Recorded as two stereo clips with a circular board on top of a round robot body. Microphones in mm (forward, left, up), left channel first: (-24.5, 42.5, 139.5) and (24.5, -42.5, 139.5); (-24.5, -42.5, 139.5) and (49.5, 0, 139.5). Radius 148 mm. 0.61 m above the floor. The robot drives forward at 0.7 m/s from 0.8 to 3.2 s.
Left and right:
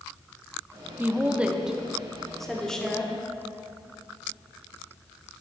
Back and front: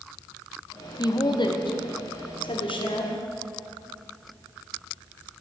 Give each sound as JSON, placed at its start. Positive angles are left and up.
{"t": 1.0, "sound": "a woman speaking", "azimuth_deg": -125, "distance_m": 1.2}